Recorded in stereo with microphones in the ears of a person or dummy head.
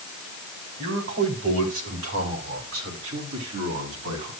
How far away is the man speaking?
About 4.5 m.